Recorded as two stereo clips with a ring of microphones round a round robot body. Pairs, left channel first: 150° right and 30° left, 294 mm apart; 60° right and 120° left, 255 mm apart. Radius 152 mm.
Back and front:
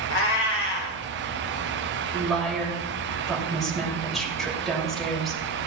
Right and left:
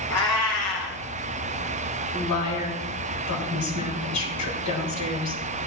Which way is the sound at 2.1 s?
60° right.